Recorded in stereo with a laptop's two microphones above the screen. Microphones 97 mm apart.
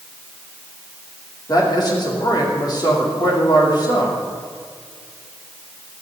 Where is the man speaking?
45° left (ahead or behind), 3 m.